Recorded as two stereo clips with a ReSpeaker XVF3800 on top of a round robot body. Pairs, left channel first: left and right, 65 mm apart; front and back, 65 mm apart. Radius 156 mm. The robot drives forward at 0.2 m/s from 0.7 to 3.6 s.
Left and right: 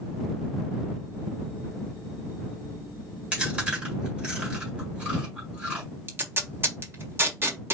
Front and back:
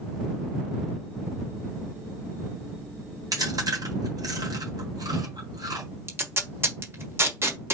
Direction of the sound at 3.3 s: 160° right.